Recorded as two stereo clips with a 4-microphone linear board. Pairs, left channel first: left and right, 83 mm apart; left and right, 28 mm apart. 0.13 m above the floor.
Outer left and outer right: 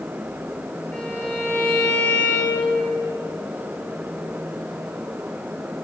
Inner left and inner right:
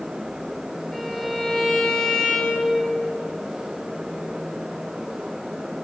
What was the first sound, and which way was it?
A violin, 15° left (ahead or behind).